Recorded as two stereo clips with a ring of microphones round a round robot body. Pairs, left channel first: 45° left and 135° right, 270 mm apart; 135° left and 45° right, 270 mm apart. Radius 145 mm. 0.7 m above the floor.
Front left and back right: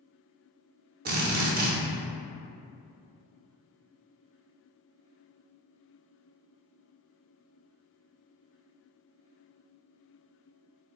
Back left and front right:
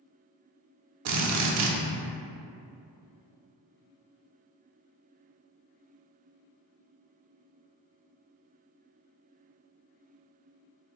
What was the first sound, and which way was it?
A drill, 75° right.